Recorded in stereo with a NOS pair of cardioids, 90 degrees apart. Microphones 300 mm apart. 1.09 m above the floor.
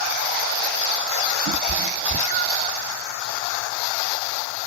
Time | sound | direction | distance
1.5 | a cat meowing | 60° right | 1.3 m